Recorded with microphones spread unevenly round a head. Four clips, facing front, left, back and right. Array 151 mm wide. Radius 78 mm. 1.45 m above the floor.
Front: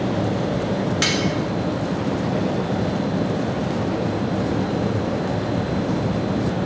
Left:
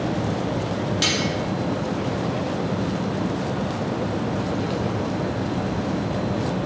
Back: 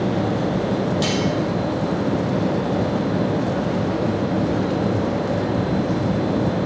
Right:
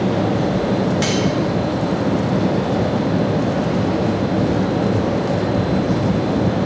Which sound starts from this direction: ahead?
Cutlery clinking, at 1.0 s.